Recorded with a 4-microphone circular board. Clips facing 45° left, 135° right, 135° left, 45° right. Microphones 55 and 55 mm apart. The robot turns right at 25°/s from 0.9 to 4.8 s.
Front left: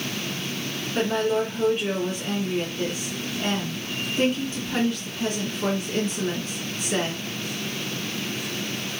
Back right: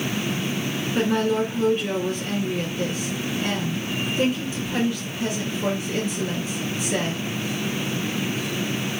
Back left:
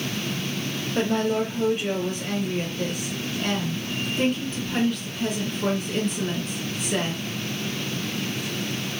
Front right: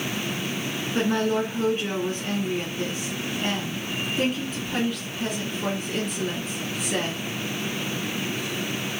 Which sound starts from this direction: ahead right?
A woman speaking, at 0.9 s.